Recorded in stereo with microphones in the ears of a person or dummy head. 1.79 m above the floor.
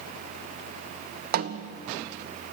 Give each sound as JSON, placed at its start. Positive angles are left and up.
{"t": 1.3, "sound": "a snare drum", "side_deg": -50, "distance_m": 0.9}